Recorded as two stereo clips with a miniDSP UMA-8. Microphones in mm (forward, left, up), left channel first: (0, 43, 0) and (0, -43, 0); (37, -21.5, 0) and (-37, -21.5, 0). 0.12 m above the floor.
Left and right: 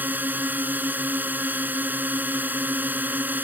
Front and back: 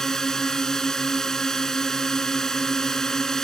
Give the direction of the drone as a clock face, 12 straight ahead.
2 o'clock.